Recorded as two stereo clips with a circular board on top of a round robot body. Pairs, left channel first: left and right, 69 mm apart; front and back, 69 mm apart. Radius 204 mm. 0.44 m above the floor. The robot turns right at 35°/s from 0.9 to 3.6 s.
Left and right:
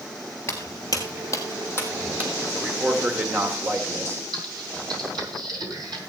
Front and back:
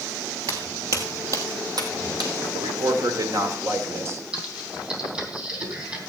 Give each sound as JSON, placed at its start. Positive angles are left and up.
{"t": 0.5, "sound": "footsteps", "azimuth_deg": 150, "distance_m": 0.6}
{"t": 2.5, "sound": "a man speaking", "azimuth_deg": -170, "distance_m": 2.5}
{"t": 4.3, "sound": "typing on a keyboard", "azimuth_deg": -110, "distance_m": 3.5}